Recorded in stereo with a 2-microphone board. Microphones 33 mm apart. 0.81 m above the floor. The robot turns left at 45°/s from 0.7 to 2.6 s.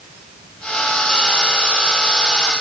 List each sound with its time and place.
Only background noise.